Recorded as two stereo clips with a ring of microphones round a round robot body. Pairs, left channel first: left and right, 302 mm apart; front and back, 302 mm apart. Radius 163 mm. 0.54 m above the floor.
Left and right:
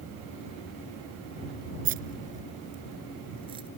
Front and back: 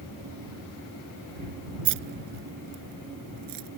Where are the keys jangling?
155° right; by 3.7 s 165° right.